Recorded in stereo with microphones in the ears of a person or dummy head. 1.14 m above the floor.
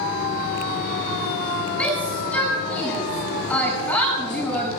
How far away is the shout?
About 7 m.